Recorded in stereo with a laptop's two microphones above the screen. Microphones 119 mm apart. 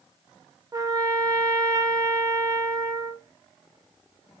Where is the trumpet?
30° right (ahead or behind), 0.5 m.